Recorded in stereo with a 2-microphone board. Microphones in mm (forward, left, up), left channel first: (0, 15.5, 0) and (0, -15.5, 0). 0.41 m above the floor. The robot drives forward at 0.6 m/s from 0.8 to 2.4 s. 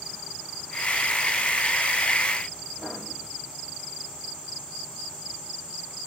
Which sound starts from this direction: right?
Writing, at 2.8 s.